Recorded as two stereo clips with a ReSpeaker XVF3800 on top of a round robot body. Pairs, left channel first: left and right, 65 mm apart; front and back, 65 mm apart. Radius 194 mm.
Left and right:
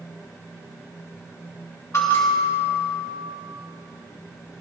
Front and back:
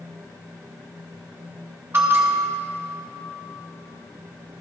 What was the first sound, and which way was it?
A bell, 130° left.